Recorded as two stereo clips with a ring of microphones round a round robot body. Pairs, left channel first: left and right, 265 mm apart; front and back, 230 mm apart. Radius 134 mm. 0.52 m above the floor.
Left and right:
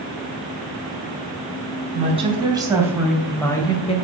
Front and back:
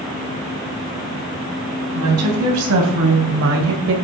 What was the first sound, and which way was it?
A woman speaking, 155° right.